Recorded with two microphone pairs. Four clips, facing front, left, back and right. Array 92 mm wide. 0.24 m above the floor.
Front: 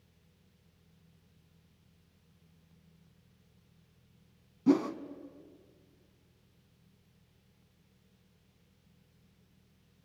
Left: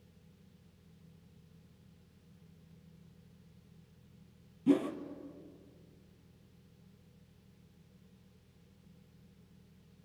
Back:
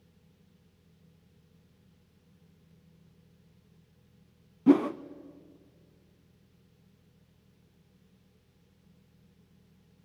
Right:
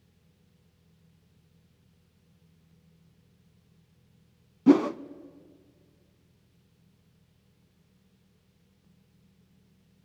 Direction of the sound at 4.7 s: 115° right.